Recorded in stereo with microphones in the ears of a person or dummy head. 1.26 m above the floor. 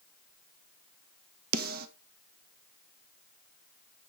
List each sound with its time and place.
1.5 s a snare drum: 50° right (ahead or behind), 1.4 m